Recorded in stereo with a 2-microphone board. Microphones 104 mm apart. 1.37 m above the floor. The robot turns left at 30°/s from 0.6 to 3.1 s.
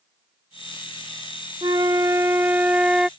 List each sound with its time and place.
1.6 s a flute: 125° right; by 3.1 s 170° right